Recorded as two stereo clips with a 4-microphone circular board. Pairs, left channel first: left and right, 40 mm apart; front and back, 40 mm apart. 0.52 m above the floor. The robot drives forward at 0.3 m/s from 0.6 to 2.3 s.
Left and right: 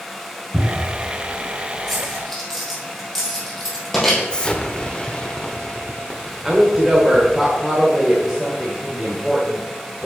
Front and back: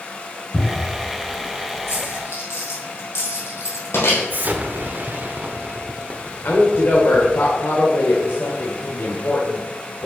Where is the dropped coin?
5° left, 3.5 m; by 4.2 s 10° left, 3.5 m.